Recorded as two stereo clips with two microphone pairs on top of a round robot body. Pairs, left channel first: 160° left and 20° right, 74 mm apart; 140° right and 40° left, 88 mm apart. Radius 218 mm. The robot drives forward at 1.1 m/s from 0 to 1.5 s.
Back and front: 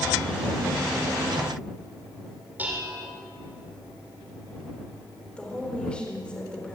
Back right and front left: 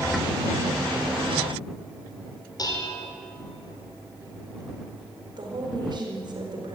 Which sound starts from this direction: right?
Dishes clattering, at 2.6 s.